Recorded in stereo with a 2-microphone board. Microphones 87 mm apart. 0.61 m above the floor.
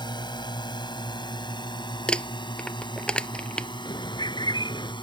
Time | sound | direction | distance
0.0 | a drone | 60° left (ahead or behind) | ?
2.1 | crumpling | 10° left (ahead or behind) | ?
3.9 | a bird | 60° left (ahead or behind) | ?